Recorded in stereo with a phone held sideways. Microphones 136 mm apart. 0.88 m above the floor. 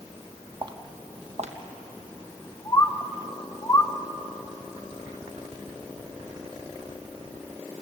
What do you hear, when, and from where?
0.6 s footsteps: 30° right (ahead or behind), 1.6 m; by 3.2 s 80° right, 4 m
2.6 s a bird: 20° left (ahead or behind), 1.0 m